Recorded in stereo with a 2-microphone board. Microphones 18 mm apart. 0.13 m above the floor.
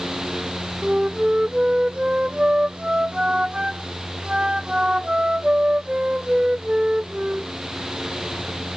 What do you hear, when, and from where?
0.8 s a flute: 60° right (ahead or behind)